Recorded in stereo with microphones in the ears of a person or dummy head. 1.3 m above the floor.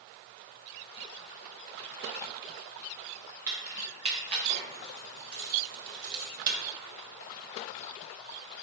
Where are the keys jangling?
15° right (ahead or behind), 1.2 m; by 6.6 s 55° right (ahead or behind), 1.0 m.